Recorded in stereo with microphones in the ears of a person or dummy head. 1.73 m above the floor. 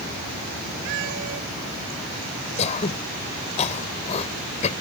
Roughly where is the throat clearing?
Left.